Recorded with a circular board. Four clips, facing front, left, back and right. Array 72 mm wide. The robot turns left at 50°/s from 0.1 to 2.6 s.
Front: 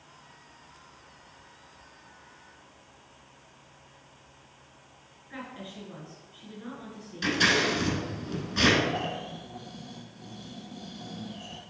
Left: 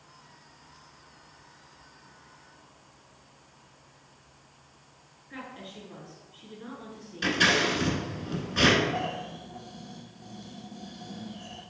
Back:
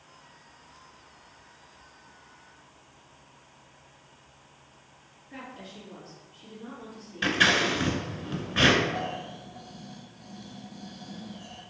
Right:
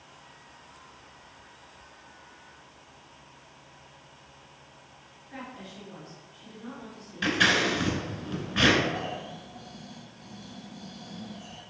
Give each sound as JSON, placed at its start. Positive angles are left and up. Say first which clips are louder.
{"t": 5.3, "sound": "a woman speaking", "louder": "even, front 2 dB", "azimuth_deg": 25, "distance_m": 1.5}
{"t": 7.2, "sound": "scissors", "louder": "even, back 1 dB", "azimuth_deg": -150, "distance_m": 0.9}
{"t": 8.9, "sound": "snoring", "louder": "left 2 dB, even", "azimuth_deg": 10, "distance_m": 0.7}